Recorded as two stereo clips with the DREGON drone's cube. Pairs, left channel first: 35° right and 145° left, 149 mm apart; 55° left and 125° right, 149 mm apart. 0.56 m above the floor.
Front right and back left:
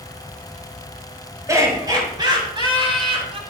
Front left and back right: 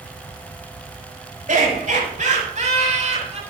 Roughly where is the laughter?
Behind right.